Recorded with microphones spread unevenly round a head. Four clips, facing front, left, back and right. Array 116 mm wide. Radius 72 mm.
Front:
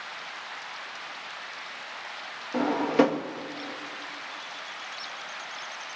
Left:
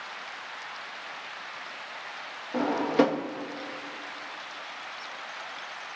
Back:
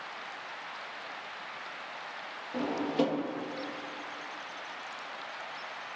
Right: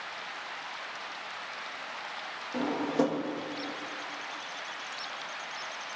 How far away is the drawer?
About 1.0 m.